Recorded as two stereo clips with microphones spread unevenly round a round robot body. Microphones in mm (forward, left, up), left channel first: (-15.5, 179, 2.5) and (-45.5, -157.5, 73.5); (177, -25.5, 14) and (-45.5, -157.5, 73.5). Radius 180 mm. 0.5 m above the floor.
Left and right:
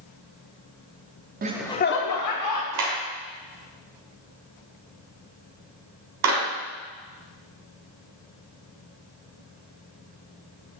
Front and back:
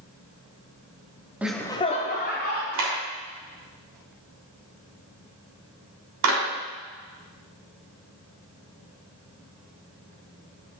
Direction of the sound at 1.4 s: 40° right.